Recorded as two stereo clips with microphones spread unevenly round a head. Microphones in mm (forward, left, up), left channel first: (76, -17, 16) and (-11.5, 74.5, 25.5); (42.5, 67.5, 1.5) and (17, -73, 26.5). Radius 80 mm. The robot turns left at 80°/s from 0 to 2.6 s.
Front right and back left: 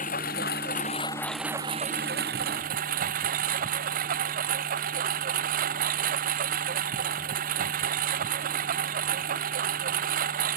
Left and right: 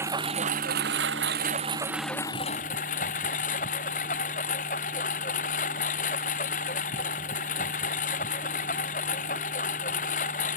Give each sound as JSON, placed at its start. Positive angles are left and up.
{"t": 0.0, "sound": "a lawn mower", "azimuth_deg": -30}